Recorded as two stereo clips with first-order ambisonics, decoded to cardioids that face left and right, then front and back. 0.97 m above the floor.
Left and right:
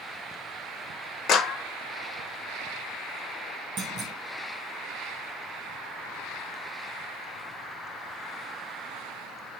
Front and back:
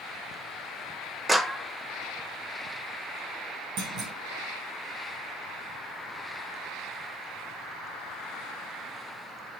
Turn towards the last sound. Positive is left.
turn(degrees=-155)